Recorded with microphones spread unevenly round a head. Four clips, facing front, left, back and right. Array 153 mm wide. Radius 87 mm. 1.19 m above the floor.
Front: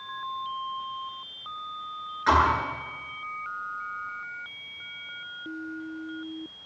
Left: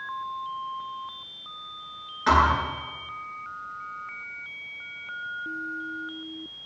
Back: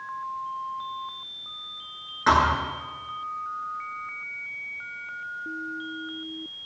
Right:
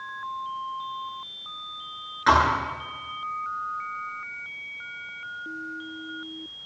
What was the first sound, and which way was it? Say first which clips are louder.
A thud: right 1 dB, back 1 dB; 165° right.